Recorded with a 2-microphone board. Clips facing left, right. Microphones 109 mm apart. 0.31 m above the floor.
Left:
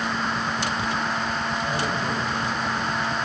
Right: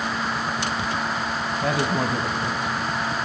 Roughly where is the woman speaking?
Right.